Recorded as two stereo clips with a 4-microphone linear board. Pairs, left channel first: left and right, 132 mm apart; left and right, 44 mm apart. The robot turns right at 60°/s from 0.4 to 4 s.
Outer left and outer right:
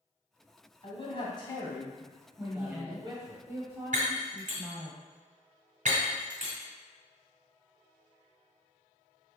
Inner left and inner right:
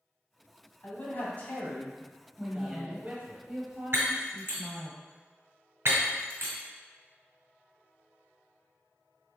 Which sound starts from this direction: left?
A man speaking, at 0.8 s.